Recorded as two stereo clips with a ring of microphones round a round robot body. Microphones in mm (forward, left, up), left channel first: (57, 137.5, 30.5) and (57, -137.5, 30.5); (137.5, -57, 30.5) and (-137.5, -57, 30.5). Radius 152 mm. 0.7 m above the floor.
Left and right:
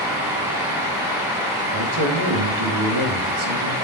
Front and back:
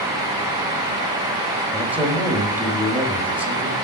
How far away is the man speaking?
About 5 m.